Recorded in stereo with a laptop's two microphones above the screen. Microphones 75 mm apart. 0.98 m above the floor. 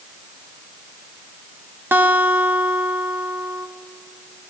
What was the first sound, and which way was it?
A guitar, 30° right (ahead or behind).